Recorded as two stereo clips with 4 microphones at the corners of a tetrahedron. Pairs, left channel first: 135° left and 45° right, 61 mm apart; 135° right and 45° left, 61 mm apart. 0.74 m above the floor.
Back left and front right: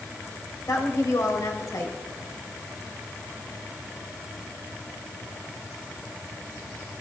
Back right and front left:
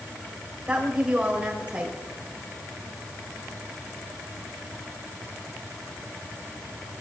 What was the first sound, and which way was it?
A woman speaking, 120° left.